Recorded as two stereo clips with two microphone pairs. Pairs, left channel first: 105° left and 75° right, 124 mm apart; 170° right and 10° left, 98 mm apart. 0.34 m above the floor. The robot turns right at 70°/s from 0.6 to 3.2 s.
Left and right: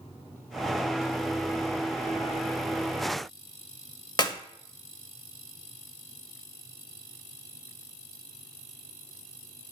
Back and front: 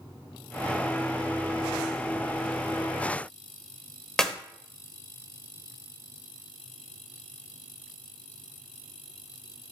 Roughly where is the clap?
Left.